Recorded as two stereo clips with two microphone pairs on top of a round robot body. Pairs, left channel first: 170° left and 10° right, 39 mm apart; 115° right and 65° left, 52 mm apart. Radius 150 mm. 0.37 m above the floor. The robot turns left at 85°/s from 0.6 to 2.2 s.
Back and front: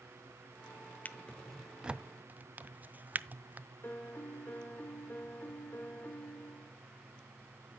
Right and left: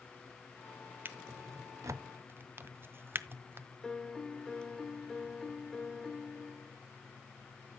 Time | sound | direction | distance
1.1 | a drawer | 115° left | 0.6 m
3.8 | a piano | straight behind | 1.5 m